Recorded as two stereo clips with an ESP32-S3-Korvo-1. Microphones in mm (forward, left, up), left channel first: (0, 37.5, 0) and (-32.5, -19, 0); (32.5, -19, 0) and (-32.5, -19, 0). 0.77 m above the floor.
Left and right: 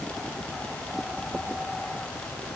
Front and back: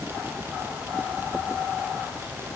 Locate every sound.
Only background noise.